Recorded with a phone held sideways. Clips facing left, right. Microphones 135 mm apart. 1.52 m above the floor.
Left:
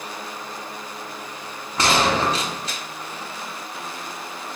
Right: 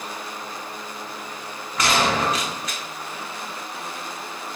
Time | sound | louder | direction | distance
1.8 | a gunshot | left 2 dB | 30° left (ahead or behind) | 0.6 m